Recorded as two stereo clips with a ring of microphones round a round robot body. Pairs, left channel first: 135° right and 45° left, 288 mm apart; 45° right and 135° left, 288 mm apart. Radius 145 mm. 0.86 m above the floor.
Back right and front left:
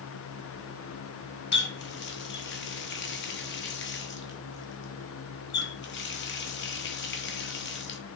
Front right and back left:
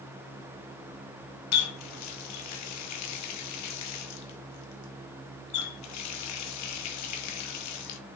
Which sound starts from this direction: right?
A running tap, at 1.5 s.